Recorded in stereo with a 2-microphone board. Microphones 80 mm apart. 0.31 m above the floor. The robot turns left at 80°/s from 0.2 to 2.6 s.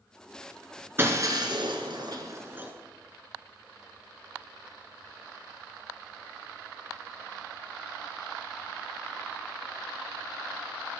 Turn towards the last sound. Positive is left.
turn(degrees=-25)  # may be behind; listen again after turning